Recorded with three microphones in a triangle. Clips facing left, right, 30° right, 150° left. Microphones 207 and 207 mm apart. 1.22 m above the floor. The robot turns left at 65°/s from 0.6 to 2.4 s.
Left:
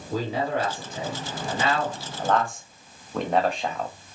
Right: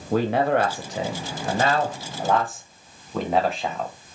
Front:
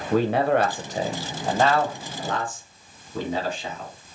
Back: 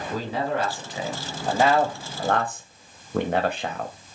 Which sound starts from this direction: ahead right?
A man speaking, at 0.1 s.